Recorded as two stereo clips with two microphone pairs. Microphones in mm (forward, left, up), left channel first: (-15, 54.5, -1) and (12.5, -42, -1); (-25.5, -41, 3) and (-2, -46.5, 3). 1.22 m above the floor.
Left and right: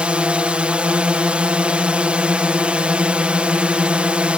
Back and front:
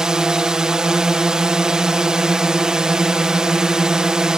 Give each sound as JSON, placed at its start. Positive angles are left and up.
{"t": 0.0, "sound": "a drone", "azimuth_deg": -5}